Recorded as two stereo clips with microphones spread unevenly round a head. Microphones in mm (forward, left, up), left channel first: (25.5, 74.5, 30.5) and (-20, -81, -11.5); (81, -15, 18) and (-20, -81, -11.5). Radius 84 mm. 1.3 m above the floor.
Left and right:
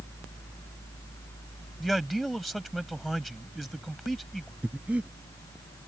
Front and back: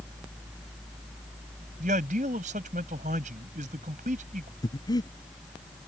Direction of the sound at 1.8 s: 160° left.